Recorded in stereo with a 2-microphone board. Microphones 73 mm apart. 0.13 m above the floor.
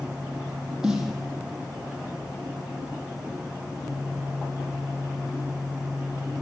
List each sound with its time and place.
0.8 s a snare drum: 10° right (ahead or behind), 4 m